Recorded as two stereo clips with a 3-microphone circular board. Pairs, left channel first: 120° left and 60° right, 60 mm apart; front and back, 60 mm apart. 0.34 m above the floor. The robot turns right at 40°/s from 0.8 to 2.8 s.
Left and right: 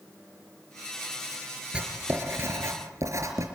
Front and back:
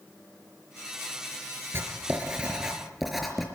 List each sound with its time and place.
1.7 s writing: 135° right, 4.5 m; by 3.5 s 90° right, 4.5 m